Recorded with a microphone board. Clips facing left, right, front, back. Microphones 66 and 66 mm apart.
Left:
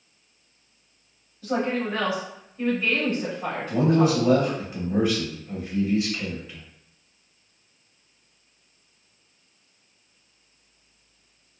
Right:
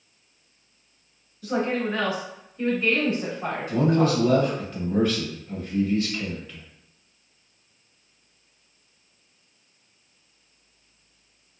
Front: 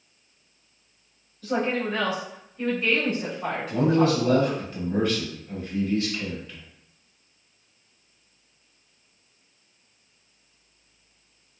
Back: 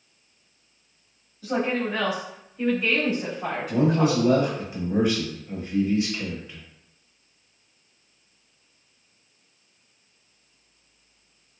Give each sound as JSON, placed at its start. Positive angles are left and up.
{"t": 1.4, "sound": "a woman speaking", "azimuth_deg": 115, "distance_m": 1.4}
{"t": 3.7, "sound": "a man speaking", "azimuth_deg": 140, "distance_m": 0.9}